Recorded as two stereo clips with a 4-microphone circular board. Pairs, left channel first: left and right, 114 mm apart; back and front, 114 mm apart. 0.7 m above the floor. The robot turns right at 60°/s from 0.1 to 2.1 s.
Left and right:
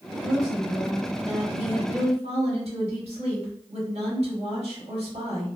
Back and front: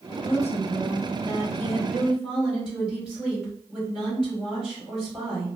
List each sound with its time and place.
0.1 s a woman speaking: 155° left, 1.9 m; by 5.6 s 85° right, 1.9 m